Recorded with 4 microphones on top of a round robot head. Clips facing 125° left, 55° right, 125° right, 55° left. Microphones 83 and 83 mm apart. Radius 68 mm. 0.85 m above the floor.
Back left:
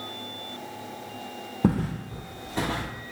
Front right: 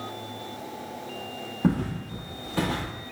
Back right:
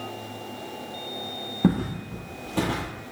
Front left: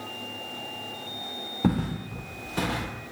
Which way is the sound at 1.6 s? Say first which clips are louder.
Back left 1 dB, back right 2 dB; 160° left.